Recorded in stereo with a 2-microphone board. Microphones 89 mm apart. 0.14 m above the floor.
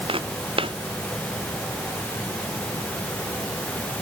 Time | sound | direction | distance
0.1 | footsteps | 90° right | ?